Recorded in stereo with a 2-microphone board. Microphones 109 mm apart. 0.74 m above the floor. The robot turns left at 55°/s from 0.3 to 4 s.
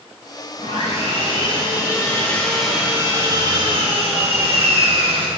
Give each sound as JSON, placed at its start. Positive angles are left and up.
{"t": 0.6, "sound": "sawing", "azimuth_deg": 110, "distance_m": 3.5}